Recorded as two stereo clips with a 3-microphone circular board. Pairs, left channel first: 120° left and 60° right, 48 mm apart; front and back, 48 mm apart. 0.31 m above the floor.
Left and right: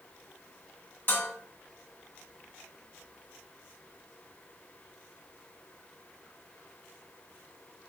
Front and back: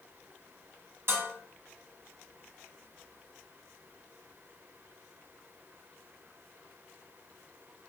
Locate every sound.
1.1 s dishes clattering: 160° left, 1.3 m